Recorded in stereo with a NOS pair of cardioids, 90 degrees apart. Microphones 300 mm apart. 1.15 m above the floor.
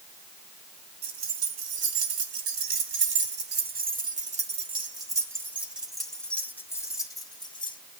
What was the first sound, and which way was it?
Keys jangling, 65° right.